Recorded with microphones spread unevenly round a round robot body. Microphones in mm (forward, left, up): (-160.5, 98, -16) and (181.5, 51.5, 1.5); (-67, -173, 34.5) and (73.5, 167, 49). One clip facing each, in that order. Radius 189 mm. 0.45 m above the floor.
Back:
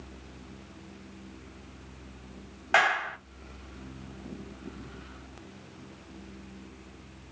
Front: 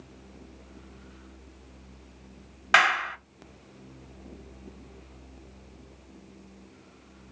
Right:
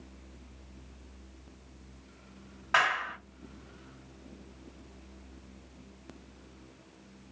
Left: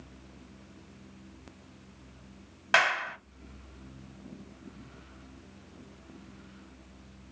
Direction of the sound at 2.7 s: 45° left.